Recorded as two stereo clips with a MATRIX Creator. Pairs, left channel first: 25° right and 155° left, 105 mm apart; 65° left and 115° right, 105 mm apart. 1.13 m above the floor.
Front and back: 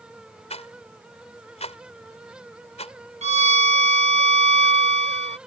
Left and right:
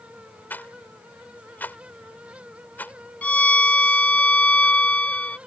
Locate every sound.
0.5 s a rattle: 5° right
3.2 s a violin: 145° left